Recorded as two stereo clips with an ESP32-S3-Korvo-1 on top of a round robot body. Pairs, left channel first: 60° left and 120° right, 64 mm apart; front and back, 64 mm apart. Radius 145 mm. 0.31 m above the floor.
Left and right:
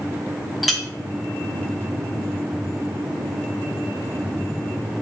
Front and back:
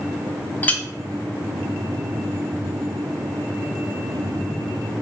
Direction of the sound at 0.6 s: 30° right.